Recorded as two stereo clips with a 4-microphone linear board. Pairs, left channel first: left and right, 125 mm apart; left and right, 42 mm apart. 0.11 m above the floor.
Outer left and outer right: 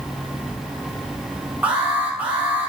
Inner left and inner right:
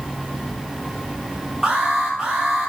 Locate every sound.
1.6 s an alarm: 15° right (ahead or behind), 6 m